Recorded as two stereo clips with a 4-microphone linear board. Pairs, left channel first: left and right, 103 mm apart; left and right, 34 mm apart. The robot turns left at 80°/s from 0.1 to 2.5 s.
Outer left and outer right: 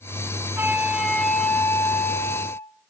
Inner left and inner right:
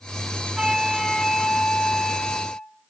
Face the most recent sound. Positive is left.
turn(degrees=25)  # may be behind; listen again after turning